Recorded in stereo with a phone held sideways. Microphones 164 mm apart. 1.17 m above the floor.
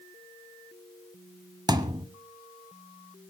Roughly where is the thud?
Right.